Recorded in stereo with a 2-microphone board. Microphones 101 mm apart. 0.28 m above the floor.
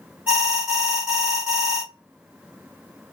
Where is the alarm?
20° right (ahead or behind), 2 m.